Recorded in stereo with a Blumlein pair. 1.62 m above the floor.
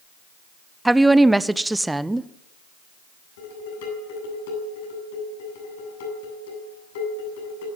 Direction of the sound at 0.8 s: 5° right.